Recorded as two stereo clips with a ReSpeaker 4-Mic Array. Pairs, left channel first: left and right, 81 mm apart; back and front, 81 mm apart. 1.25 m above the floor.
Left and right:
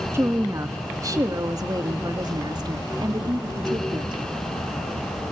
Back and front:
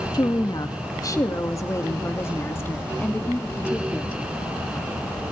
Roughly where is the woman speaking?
Behind right.